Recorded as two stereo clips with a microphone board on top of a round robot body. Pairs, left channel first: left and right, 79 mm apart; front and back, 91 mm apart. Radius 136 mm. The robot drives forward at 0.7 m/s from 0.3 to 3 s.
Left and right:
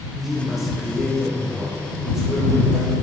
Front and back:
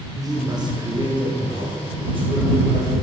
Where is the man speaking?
175° right, 1.2 m; by 2.9 s straight behind, 2.5 m.